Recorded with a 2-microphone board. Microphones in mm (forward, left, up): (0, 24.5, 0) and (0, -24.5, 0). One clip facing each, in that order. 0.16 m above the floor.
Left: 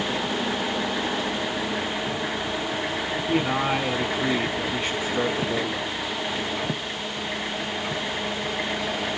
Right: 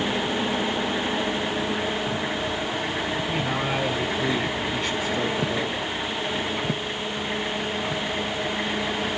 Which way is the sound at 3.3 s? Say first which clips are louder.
Left 3 dB; 25° left (ahead or behind).